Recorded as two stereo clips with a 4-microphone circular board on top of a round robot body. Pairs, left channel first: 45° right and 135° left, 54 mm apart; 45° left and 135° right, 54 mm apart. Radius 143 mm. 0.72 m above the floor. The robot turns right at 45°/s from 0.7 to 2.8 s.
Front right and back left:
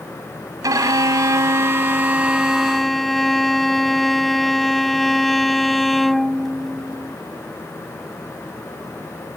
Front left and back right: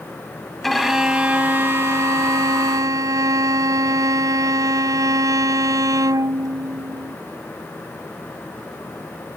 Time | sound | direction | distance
0.6 | a violin | 130° left | ?